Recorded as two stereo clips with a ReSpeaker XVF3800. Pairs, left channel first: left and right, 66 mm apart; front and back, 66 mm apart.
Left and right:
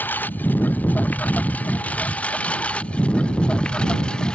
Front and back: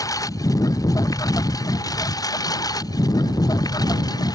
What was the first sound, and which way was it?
A lawn mower, 30° left.